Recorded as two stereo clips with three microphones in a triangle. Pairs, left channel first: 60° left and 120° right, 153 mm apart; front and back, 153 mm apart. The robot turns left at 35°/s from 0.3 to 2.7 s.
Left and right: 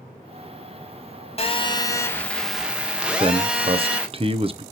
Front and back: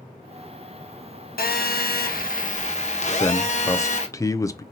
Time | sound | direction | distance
1.4 | a phone buzzing | 10° left | 0.9 m
3.2 | a man speaking | 65° right | 0.6 m